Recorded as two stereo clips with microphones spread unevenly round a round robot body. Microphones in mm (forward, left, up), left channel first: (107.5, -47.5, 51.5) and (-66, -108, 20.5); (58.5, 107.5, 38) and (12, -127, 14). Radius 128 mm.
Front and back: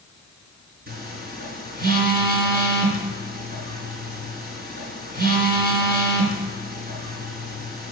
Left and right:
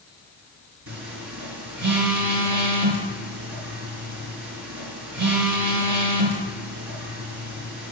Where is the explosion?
No explosion in this recording.